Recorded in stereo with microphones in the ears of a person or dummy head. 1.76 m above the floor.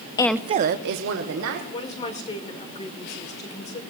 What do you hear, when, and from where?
0.2 s a woman speaking: 20° left (ahead or behind), 0.5 m; by 1.6 s 80° right, 2.0 m
1.7 s a woman speaking: 30° left (ahead or behind), 1.6 m